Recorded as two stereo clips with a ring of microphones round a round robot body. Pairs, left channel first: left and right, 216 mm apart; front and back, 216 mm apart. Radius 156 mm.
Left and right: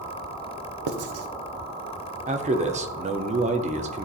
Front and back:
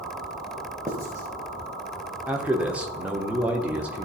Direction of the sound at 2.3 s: 100° right.